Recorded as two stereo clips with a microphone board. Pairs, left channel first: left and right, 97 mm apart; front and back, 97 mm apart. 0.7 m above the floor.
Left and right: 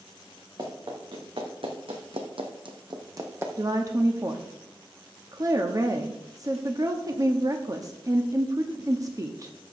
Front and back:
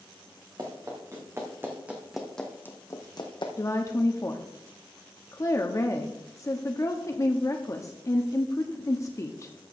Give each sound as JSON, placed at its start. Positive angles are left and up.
{"t": 0.6, "sound": "running footsteps", "azimuth_deg": -130, "distance_m": 3.5}
{"t": 3.6, "sound": "a woman speaking", "azimuth_deg": -50, "distance_m": 0.8}